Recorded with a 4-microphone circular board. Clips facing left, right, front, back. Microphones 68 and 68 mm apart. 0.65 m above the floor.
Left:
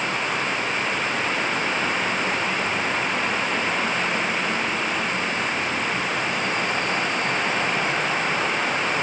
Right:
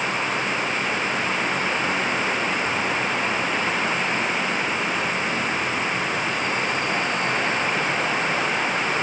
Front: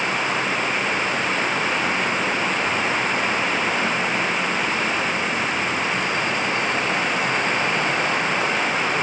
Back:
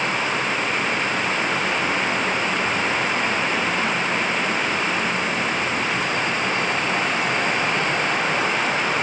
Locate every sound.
Only background noise.